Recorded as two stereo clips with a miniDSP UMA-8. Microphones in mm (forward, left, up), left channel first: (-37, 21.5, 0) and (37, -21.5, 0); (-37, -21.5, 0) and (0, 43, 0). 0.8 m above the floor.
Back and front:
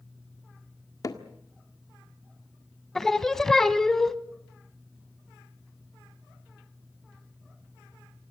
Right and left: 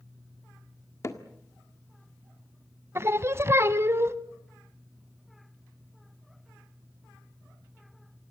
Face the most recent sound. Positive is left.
turn(degrees=70)